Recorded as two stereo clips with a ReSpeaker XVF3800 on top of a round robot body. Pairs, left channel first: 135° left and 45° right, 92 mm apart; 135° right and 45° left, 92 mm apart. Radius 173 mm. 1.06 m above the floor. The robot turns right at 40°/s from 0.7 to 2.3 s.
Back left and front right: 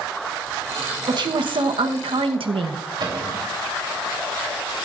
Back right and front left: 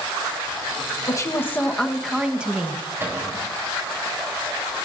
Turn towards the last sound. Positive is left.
turn(degrees=-20)